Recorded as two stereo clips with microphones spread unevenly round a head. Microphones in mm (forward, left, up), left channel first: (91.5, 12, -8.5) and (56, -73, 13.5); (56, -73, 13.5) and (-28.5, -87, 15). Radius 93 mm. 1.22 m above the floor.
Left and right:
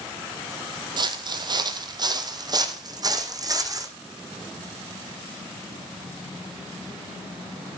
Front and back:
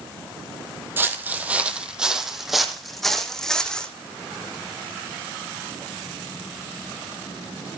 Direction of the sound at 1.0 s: 110° right.